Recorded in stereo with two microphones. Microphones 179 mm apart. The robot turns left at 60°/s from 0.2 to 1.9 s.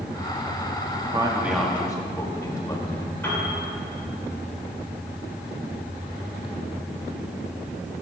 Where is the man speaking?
35° right (ahead or behind), 1.5 m; by 3.1 s 20° left (ahead or behind), 1.5 m.